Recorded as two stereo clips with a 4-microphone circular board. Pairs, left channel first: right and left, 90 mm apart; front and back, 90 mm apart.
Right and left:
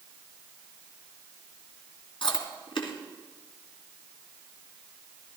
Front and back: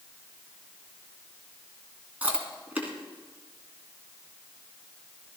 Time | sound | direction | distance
2.2 | chewing | 110° right | 2.5 m